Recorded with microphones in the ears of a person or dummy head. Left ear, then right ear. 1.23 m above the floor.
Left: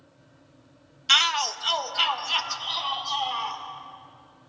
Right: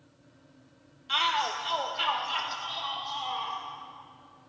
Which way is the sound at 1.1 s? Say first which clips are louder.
Left 6 dB; 70° left (ahead or behind).